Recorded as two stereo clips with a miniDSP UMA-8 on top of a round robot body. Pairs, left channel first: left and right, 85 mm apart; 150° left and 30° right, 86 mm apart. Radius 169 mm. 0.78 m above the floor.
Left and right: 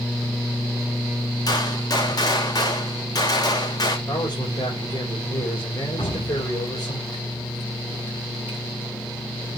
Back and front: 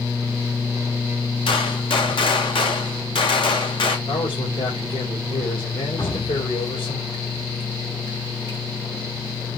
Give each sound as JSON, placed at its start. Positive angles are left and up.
{"t": 1.5, "sound": "a gunshot", "azimuth_deg": 135, "distance_m": 2.5}
{"t": 4.1, "sound": "a man speaking", "azimuth_deg": 135, "distance_m": 5.0}
{"t": 6.0, "sound": "dripping", "azimuth_deg": 115, "distance_m": 6.5}